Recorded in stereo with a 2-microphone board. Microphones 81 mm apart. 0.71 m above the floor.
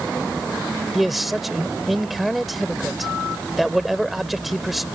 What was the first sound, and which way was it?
A man speaking, centre (ahead or behind).